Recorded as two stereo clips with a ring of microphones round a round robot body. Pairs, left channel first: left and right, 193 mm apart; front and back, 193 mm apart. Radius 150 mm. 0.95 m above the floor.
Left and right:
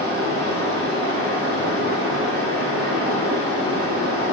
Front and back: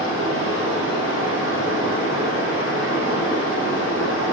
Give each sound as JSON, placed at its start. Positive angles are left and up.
{"t": 0.0, "sound": "running water", "azimuth_deg": -80, "distance_m": 6.0}